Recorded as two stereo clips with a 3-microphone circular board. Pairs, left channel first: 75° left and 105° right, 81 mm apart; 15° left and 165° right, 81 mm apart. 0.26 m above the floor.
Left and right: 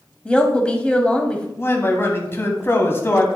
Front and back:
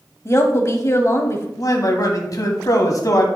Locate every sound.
0.2 s a woman speaking: 10° left, 1.2 m
1.6 s a man speaking: 25° left, 1.4 m